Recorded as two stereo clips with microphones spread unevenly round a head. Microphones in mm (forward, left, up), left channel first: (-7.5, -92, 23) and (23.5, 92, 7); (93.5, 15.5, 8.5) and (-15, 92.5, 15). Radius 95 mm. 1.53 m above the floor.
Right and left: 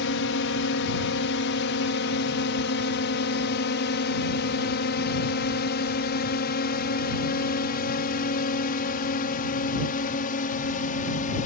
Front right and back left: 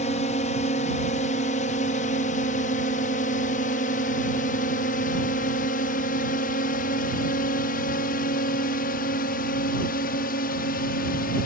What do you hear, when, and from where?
0.0 s a drone: 85° right; by 11.5 s 50° right